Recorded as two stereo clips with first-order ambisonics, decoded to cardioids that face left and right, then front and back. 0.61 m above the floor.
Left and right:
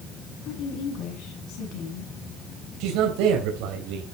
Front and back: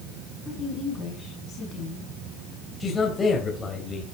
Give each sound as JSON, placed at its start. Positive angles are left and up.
{"t": 0.5, "sound": "a woman speaking", "azimuth_deg": 60, "distance_m": 6.0}
{"t": 2.8, "sound": "a man speaking", "azimuth_deg": -70, "distance_m": 3.0}